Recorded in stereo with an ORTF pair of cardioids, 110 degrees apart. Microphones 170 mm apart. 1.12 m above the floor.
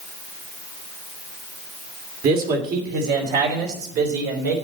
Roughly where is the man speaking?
Ahead right.